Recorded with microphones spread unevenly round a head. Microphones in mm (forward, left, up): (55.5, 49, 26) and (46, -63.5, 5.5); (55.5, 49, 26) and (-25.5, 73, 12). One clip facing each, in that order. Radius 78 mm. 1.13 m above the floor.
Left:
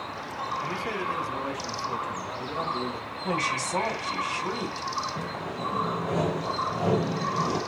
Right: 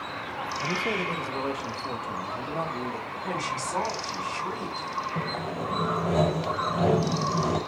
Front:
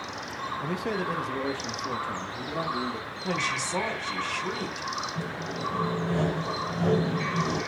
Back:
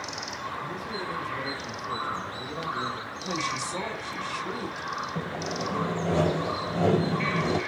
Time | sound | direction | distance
0.6 | a man speaking | 30° right | 0.9 m
3.2 | a woman speaking | 5° left | 3.5 m
5.2 | sawing | 155° right | 1.7 m